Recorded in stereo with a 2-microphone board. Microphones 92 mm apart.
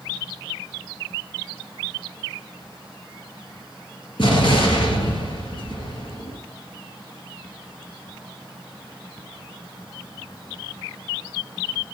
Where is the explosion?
65° left (ahead or behind), 3 m.